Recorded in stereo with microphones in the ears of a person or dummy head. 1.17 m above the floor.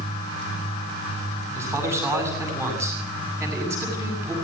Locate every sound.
1.6 s a man speaking: 15° right (ahead or behind), 8 m